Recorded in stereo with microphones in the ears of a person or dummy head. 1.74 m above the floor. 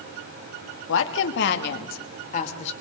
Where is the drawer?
I don't hear a drawer.